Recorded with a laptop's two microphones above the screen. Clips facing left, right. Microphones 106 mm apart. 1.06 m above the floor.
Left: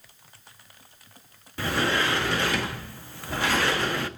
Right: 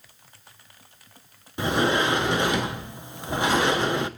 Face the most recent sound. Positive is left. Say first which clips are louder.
# right 3 dB
turn(degrees=-20)  # may be behind; listen again after turning